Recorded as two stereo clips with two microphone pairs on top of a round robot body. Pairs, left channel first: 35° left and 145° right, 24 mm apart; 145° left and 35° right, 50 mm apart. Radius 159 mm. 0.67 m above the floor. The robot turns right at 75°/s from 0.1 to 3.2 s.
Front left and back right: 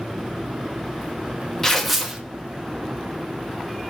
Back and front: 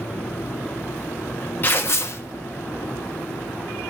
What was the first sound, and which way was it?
Tearing paper, 105° left.